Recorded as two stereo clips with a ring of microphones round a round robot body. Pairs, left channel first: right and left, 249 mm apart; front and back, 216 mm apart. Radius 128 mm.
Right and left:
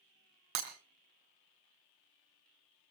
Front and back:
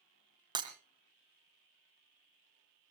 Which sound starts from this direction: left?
Breaking glass, at 0.6 s.